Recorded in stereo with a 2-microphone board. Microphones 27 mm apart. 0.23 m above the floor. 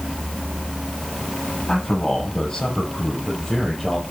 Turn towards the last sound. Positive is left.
turn(degrees=10)  # may be behind; listen again after turning